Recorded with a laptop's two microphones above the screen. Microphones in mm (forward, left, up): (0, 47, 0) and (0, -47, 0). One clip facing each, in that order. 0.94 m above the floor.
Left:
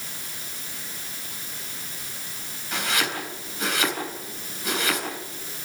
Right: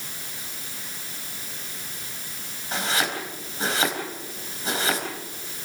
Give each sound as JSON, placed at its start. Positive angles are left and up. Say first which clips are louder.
{"t": 2.7, "sound": "chopping", "louder": "right 1 dB", "side_deg": -35, "distance_m": 4.0}